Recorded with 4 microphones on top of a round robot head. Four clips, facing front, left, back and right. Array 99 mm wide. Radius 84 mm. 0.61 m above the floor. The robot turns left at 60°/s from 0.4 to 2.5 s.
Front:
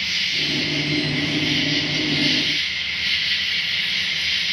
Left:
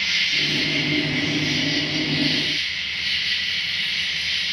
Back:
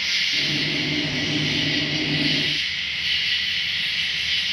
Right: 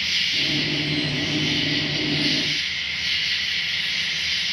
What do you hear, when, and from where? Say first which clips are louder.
0.0 s an insect: left 2 dB, even; 100° left, 1.0 m; by 4.5 s 25° right, 1.0 m